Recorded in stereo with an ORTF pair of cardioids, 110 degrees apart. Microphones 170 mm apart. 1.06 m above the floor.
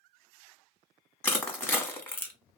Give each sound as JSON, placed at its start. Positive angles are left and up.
{"t": 1.2, "sound": "crushing", "azimuth_deg": 15, "distance_m": 0.8}